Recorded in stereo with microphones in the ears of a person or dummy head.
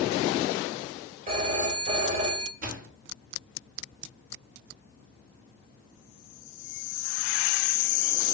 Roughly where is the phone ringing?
Right.